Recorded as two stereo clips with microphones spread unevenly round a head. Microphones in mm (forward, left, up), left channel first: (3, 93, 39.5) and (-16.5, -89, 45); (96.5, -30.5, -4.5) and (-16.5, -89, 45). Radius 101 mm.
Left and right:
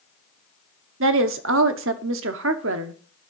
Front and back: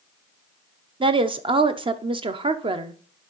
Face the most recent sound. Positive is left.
turn(degrees=-115)